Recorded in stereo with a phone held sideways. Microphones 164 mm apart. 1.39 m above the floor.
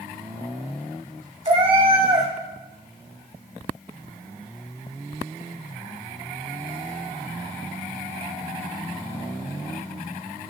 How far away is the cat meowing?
About 1.6 m.